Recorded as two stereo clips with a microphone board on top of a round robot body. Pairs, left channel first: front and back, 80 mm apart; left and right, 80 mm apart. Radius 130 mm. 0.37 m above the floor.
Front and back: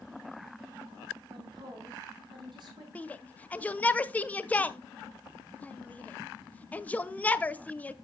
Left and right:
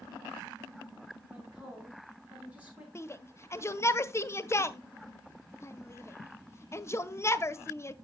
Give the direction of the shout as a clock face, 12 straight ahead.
10 o'clock.